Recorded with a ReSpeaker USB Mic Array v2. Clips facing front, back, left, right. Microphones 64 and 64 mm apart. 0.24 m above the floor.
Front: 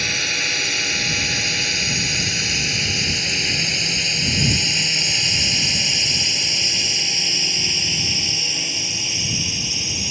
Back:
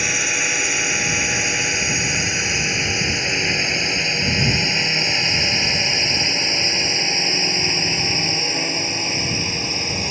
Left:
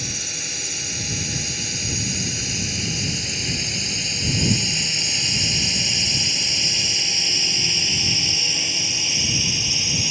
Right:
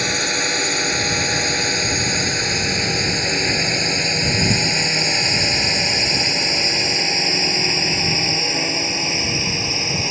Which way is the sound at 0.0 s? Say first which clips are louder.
Back 2 dB, right 12 dB; 105° right.